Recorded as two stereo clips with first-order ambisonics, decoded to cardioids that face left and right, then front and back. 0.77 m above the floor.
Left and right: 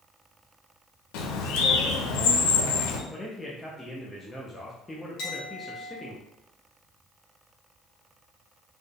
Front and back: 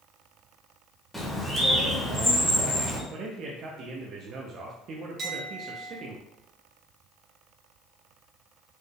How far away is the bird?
About 0.8 m.